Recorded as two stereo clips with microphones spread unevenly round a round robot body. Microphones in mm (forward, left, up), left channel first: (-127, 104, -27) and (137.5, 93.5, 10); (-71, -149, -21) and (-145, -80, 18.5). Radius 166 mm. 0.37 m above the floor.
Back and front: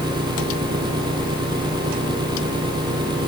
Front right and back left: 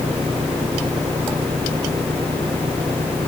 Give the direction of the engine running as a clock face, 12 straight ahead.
10 o'clock.